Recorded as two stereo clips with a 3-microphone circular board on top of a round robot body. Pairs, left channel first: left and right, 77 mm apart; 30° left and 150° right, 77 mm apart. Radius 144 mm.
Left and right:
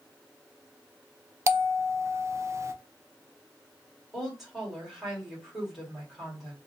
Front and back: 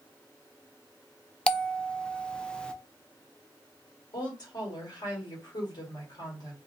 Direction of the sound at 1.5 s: 45° right.